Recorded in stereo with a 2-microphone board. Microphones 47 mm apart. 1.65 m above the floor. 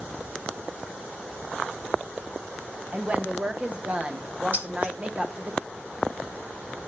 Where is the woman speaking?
25° right (ahead or behind), 0.9 m.